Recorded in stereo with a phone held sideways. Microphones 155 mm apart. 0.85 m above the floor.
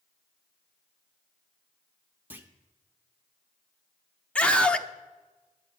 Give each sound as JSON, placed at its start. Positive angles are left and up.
{"t": 2.3, "sound": "a clunk", "side_deg": -10, "distance_m": 0.9}
{"t": 4.3, "sound": "a scream", "side_deg": 5, "distance_m": 0.7}